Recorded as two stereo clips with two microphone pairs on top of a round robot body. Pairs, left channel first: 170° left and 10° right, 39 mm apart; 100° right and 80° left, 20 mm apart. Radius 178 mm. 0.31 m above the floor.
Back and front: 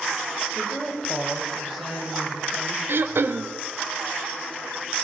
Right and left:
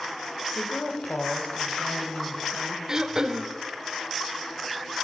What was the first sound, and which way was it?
A woman speaking, 110° right.